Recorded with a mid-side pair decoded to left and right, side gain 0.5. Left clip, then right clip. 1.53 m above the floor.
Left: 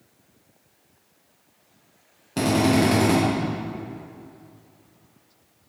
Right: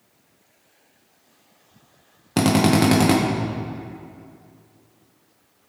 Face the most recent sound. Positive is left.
turn(degrees=-55)